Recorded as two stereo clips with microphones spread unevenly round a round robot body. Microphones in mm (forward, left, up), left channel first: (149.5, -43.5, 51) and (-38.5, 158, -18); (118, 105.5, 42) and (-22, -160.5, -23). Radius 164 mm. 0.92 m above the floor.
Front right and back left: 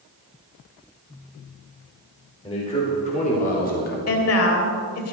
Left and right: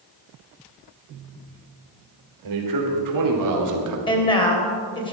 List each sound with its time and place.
2.4 s a man speaking: 125° right, 4.5 m; by 4.0 s 110° right, 2.5 m
4.1 s a woman speaking: 15° right, 3.5 m